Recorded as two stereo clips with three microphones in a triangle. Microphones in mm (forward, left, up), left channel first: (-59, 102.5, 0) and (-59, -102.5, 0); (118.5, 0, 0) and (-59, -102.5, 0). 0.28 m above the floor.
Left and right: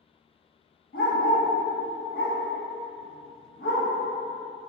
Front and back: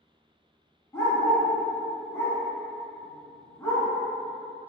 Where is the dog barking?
105° left, 0.8 m.